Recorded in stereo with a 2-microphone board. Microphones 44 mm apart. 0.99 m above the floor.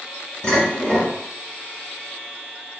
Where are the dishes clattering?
20° left (ahead or behind), 1.4 m.